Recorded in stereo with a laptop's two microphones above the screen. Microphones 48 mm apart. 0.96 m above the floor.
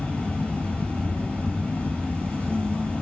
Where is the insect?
25° left (ahead or behind), 1.8 m.